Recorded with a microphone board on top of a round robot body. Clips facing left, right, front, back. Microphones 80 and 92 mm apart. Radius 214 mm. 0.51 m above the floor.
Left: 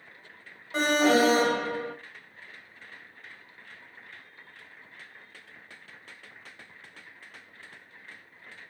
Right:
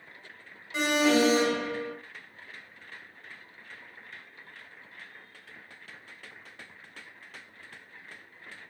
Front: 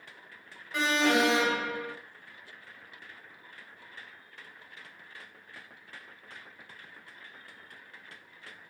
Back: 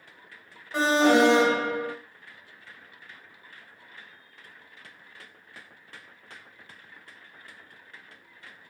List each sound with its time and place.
0.7 s an alarm: 125° left, 2.0 m